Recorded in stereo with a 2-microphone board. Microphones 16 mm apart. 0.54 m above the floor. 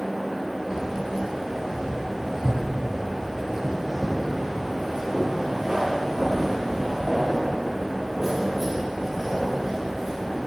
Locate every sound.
0.7 s keys jangling: 45° right (ahead or behind), 7 m; by 10.4 s 25° right (ahead or behind), 12 m